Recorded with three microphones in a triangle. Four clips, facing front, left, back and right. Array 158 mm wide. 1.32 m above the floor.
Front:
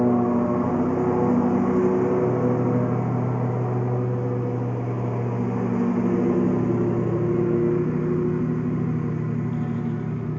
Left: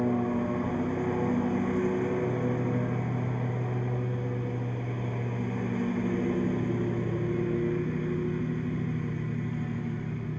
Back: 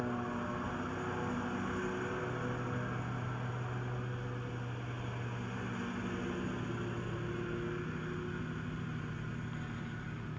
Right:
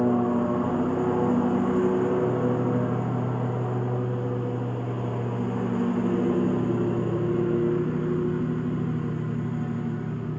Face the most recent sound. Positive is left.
turn(degrees=-25)